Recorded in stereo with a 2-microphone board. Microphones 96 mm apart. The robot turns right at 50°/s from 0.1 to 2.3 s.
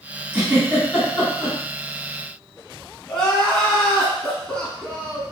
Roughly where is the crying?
Centre.